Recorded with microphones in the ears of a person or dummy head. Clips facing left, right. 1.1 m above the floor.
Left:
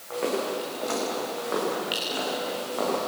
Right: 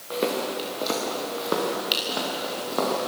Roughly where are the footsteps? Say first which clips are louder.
Right 1 dB; right.